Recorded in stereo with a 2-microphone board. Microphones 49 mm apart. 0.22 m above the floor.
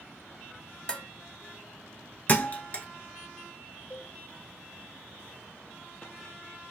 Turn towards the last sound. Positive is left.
turn(degrees=40)  # may be behind; listen again after turning